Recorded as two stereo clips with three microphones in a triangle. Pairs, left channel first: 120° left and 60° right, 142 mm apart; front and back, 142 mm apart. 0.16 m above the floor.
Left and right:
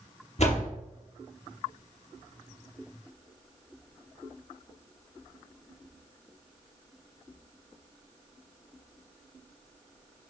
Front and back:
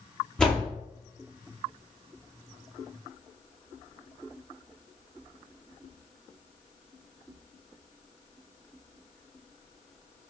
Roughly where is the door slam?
Left.